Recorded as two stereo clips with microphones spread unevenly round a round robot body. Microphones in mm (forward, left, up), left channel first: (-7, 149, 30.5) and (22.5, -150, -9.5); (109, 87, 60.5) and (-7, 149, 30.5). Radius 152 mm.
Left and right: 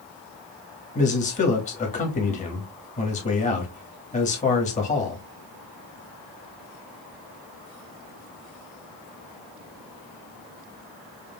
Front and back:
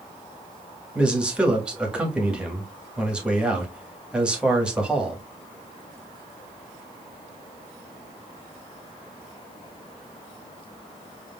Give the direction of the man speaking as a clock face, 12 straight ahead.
7 o'clock.